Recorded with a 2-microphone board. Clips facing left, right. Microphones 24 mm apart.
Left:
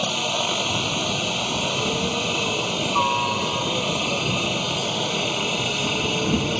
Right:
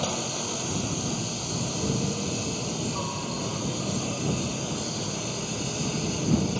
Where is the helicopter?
50° left (ahead or behind).